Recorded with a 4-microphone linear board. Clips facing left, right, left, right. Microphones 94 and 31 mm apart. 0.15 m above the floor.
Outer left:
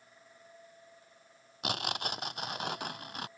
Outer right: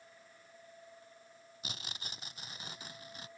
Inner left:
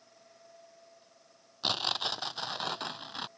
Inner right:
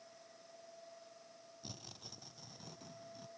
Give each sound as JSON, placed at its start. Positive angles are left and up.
{"t": 1.6, "sound": "tearing paper", "side_deg": 70}